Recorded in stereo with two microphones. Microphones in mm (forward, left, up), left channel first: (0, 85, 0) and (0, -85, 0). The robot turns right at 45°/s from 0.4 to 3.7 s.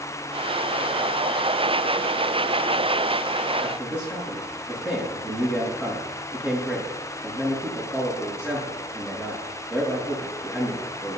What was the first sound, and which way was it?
A man speaking, 10° right (ahead or behind).